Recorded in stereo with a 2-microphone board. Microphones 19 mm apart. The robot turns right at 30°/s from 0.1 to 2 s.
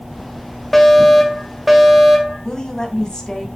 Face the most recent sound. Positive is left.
turn(degrees=35)  # may be behind; listen again after turning